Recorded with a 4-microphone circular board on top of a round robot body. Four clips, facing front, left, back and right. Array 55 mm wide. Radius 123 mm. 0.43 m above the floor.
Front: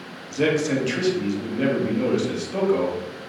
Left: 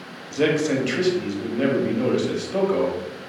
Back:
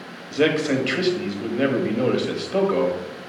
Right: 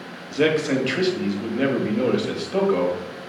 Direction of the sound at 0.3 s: 155° right.